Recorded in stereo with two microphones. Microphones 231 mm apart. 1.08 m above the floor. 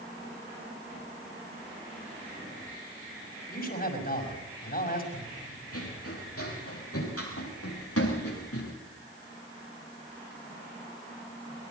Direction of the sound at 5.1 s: 80° left.